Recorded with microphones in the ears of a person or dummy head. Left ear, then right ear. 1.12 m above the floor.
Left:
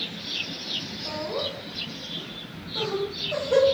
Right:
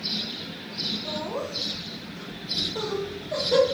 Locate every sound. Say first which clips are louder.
1.1 s laughter: left 1 dB; 30° right (ahead or behind), 1.0 m; by 3.6 s 10° right (ahead or behind), 1.0 m